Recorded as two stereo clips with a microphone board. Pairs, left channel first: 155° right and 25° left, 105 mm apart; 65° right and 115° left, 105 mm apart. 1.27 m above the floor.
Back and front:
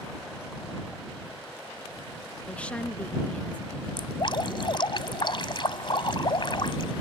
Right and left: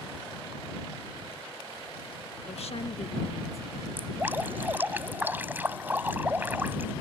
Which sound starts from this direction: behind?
Dripping, at 4.0 s.